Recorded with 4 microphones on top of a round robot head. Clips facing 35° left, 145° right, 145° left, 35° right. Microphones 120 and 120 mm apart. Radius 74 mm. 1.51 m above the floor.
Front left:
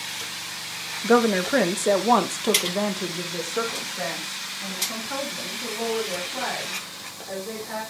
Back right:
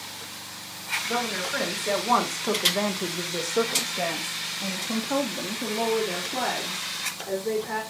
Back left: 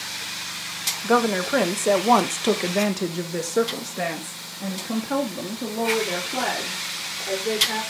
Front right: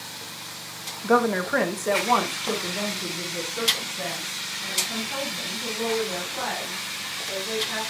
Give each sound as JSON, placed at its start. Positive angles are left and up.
{"t": 1.0, "sound": "a woman speaking", "azimuth_deg": 60, "distance_m": 1.4}